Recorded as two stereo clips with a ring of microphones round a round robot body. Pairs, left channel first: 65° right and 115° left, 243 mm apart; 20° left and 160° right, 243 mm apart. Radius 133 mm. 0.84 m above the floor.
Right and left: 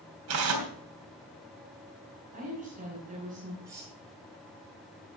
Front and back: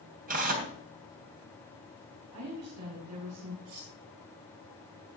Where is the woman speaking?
175° left, 6.5 m.